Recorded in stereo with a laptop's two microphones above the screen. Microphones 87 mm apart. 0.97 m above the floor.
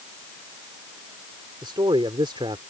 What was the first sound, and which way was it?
A man speaking, 85° right.